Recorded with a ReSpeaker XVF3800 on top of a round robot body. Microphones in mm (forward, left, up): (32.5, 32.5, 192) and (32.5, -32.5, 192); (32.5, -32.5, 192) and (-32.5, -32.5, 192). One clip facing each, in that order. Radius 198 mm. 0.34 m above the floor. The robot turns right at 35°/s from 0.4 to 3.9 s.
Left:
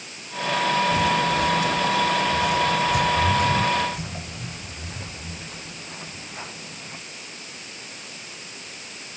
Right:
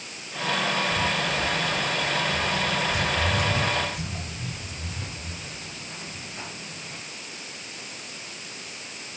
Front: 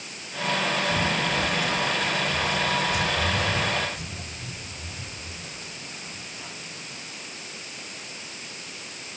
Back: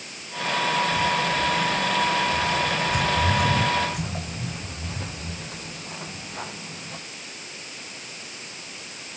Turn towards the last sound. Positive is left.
turn(degrees=160)